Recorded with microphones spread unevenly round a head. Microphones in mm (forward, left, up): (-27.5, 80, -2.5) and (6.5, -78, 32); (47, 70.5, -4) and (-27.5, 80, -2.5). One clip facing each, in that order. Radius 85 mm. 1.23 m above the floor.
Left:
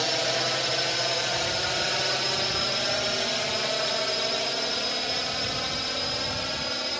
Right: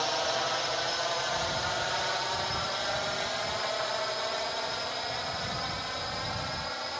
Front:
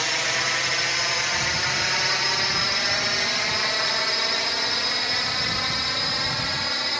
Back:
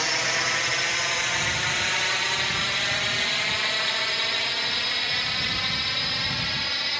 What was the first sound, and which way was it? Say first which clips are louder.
A drone: left 3 dB, even; 85° left.